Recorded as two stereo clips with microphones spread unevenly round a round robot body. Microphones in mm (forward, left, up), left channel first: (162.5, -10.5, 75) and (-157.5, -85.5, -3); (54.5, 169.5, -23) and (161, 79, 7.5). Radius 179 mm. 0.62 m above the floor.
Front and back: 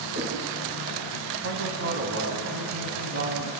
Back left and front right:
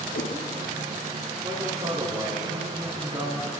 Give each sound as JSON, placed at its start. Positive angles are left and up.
{"t": 0.1, "sound": "a whoosh", "azimuth_deg": 120, "distance_m": 9.0}
{"t": 1.4, "sound": "a man speaking", "azimuth_deg": -110, "distance_m": 4.5}